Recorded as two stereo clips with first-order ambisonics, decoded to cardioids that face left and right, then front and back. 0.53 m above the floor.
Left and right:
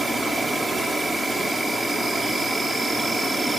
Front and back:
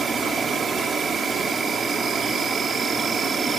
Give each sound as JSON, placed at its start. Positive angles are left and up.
{"t": 0.0, "sound": "an insect", "azimuth_deg": -155, "distance_m": 1.8}